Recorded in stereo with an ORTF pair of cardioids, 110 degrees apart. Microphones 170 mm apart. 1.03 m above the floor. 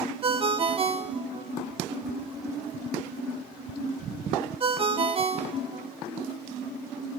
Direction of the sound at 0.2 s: 35° right.